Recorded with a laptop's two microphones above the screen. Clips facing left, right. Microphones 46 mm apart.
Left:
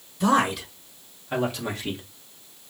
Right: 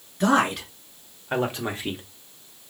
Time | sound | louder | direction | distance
0.2 | a man speaking | right 1 dB | 50° right (ahead or behind) | 3 m